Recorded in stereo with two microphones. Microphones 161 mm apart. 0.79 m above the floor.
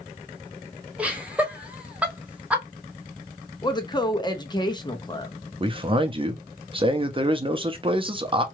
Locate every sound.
1.0 s laughter: 10° right (ahead or behind), 0.9 m
3.6 s a woman speaking: 25° left (ahead or behind), 0.6 m
5.6 s a man speaking: 35° right (ahead or behind), 0.7 m